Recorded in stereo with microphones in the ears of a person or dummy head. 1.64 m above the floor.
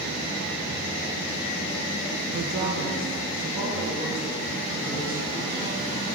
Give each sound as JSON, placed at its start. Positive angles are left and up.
{"t": 2.3, "sound": "a woman speaking", "side_deg": -50, "distance_m": 0.6}